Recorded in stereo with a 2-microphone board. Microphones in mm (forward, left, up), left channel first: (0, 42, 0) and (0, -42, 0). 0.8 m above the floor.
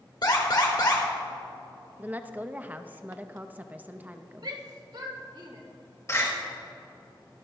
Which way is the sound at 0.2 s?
55° left (ahead or behind).